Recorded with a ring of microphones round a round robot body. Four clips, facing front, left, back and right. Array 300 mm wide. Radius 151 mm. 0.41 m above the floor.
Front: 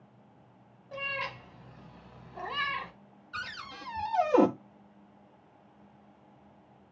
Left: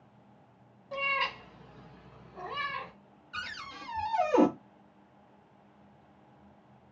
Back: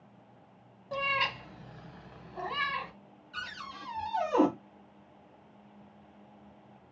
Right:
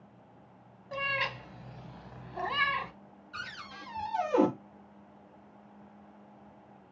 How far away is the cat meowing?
About 0.9 m.